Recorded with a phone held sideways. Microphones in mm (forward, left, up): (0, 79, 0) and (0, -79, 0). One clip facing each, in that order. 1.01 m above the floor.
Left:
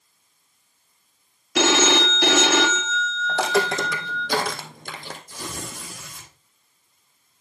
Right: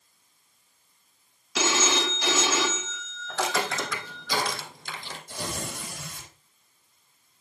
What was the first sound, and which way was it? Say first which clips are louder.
A phone ringing: left 7 dB; 65° left (ahead or behind).